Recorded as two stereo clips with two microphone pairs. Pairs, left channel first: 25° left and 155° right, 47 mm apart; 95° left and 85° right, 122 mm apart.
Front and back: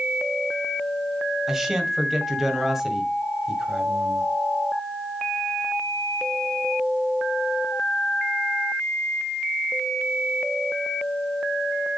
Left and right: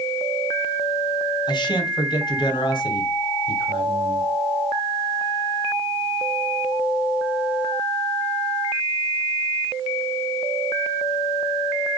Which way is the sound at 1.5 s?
125° left.